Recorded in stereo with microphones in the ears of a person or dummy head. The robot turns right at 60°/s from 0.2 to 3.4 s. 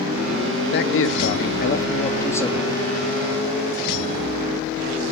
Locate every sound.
0.7 s a man speaking: 70° left, 0.8 m; by 2.8 s 170° right, 0.8 m